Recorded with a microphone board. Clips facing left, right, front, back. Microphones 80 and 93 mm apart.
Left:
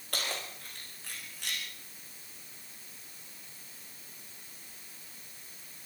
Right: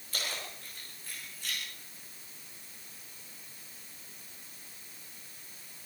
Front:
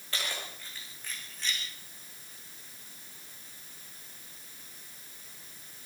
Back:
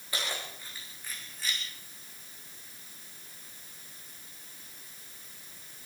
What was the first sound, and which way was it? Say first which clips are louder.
Keys jangling: left 2 dB, back 1 dB; 105° left.